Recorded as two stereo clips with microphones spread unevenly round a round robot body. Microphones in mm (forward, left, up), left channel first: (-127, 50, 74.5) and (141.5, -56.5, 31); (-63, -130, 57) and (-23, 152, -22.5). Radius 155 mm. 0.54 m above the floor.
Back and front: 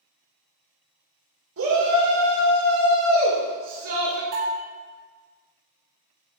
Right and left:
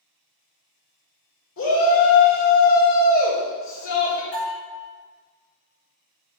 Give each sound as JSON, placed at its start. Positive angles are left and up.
{"t": 1.6, "sound": "a shout", "azimuth_deg": -45, "distance_m": 2.0}
{"t": 4.3, "sound": "a bell", "azimuth_deg": -15, "distance_m": 2.5}